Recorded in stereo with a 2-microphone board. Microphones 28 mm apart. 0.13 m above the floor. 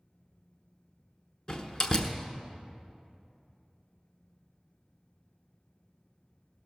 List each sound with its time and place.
1.5 s a door slam: 25° left (ahead or behind), 1.0 m